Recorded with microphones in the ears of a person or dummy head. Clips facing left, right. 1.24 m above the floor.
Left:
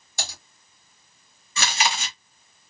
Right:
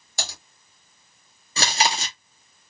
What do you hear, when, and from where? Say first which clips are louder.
0.2 s typing on a keyboard: right 1 dB; 60° right (ahead or behind), 2 m
1.6 s chewing: right 2 dB; 30° right (ahead or behind), 0.7 m